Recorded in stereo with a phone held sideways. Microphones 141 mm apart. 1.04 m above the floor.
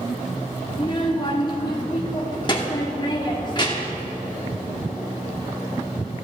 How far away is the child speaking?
About 1.3 m.